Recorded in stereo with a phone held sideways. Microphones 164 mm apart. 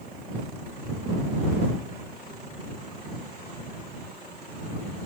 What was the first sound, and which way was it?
Only background noise.